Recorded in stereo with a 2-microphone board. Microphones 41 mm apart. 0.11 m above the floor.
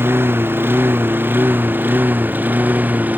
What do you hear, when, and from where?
0.0 s a lawn mower: 65° right (ahead or behind); by 3.2 s 45° right (ahead or behind)